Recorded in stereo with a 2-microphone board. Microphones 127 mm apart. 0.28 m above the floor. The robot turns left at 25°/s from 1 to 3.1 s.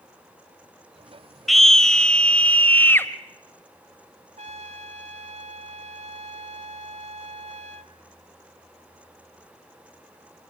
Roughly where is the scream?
Centre.